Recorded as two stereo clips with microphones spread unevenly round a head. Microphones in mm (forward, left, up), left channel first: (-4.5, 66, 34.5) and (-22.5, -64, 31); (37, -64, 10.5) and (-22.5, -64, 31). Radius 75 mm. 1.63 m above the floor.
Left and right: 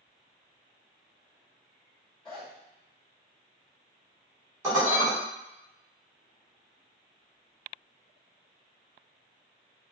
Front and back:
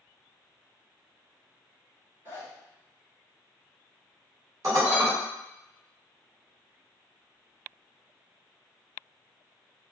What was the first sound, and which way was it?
A zipper, 165° left.